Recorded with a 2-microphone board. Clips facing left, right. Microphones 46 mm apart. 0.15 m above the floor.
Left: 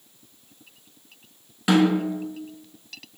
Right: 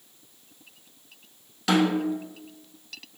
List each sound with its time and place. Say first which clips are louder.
1.7 s a snare drum: left 3 dB; 20° left (ahead or behind), 0.6 m